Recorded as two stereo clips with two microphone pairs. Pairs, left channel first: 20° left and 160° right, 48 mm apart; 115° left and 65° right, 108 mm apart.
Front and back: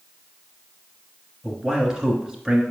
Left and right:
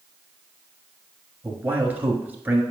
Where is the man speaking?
105° right, 1.3 m.